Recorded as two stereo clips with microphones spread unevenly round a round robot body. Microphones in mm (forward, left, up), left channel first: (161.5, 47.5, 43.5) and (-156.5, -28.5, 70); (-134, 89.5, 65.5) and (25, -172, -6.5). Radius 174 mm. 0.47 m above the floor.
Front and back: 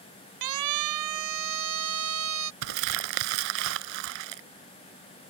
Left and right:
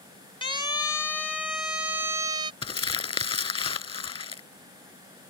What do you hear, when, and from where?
0.4 s a siren: 160° right; by 2.5 s 130° right
2.6 s crumpling: 170° right